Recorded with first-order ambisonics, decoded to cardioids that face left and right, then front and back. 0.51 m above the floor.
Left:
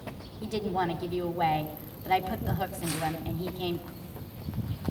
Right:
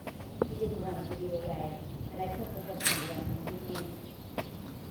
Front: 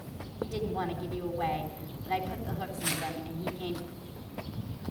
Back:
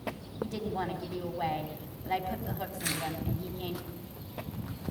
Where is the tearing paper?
110° right, 7.5 m.